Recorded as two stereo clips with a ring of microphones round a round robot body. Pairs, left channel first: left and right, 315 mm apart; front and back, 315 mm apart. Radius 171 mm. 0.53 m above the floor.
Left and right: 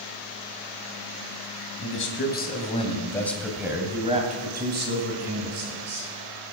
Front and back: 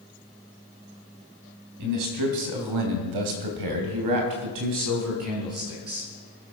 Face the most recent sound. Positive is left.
turn(degrees=-130)